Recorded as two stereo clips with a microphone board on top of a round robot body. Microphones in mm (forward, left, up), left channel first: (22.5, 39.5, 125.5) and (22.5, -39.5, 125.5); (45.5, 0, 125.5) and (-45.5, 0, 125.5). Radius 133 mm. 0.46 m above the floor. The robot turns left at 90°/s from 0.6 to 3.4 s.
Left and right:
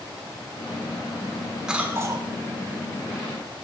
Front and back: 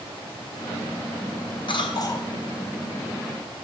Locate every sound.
1.7 s a cough: 5° right, 1.7 m; by 2.3 s 60° right, 1.7 m